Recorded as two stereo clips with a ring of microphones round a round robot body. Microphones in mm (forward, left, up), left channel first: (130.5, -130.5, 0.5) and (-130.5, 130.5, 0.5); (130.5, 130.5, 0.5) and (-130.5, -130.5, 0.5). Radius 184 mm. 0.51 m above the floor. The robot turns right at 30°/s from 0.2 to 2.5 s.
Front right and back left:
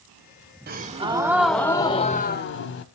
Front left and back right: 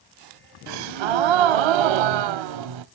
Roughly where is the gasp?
Behind.